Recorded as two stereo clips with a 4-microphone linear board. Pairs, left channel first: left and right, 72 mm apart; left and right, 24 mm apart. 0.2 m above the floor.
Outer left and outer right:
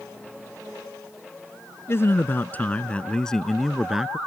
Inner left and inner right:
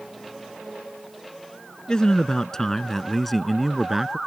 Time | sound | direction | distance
1.9 | a man speaking | 40° left (ahead or behind) | ?